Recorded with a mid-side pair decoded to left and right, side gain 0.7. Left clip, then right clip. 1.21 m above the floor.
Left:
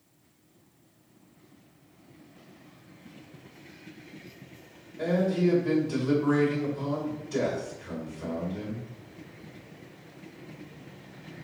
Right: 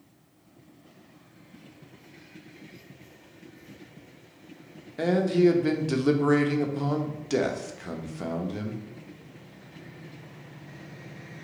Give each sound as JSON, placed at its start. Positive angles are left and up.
{"t": 5.0, "sound": "a man speaking", "azimuth_deg": -70, "distance_m": 1.0}